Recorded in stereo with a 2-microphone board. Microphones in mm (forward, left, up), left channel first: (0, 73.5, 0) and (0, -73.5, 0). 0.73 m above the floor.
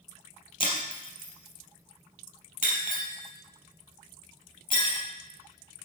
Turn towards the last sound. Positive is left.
turn(degrees=60)  # may be behind; listen again after turning